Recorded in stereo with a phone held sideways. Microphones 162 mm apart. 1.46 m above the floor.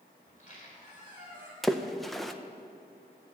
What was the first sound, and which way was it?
A squeak, 50° left (ahead or behind).